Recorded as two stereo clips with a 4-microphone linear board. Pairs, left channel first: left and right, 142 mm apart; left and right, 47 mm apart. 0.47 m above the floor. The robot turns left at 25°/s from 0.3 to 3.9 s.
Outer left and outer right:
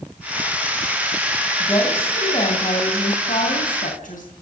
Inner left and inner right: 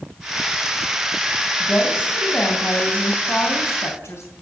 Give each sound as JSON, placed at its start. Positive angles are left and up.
{"t": 1.6, "sound": "a woman speaking", "azimuth_deg": 155, "distance_m": 3.5}